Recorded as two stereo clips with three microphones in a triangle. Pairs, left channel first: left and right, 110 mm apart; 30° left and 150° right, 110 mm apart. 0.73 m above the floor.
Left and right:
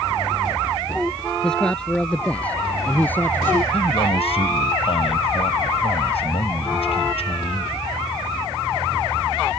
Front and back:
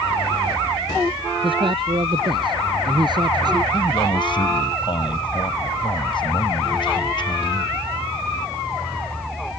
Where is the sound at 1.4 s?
175° left; by 3.6 s 160° left.